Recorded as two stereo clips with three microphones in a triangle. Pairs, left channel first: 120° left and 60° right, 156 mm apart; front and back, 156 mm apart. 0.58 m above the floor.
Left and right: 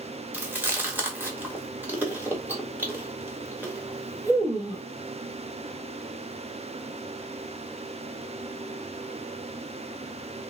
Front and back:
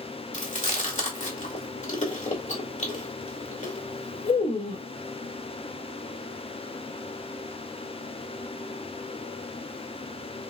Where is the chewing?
15° left, 1.8 m.